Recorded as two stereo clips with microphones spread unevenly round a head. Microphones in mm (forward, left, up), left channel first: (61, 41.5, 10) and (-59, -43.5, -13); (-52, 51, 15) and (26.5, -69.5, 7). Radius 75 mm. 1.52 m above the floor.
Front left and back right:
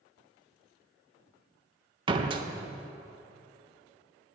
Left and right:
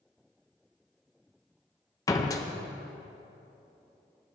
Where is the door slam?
165° left, 0.7 m.